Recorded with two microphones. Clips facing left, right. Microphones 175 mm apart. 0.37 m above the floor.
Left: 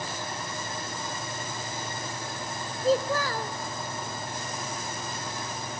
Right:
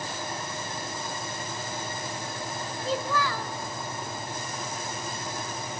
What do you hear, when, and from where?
2.8 s a child speaking: 45° left (ahead or behind), 1.4 m